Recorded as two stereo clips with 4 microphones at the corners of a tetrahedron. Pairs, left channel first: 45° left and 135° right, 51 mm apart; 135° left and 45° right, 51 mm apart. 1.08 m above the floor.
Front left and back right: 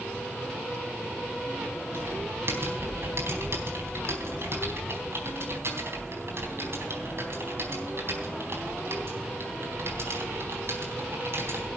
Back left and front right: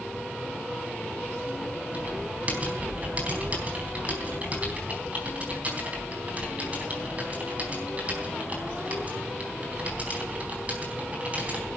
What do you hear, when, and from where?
1.9 s typing on a keyboard: 105° right, 4 m